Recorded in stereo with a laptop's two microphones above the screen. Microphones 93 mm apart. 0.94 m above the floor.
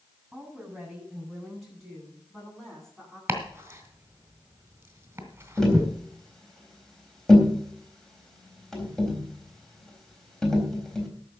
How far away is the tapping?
About 4 m.